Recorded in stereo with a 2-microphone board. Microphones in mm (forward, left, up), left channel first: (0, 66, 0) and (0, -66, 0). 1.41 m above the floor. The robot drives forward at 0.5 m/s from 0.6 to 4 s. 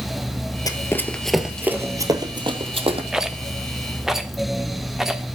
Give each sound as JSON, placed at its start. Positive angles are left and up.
{"t": 0.7, "sound": "running footsteps", "side_deg": 25, "distance_m": 1.6}
{"t": 3.1, "sound": "a rattle", "side_deg": -5, "distance_m": 0.8}